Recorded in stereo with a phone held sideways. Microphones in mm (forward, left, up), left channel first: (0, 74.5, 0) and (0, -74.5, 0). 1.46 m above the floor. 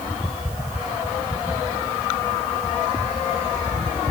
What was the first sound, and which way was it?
Only background noise.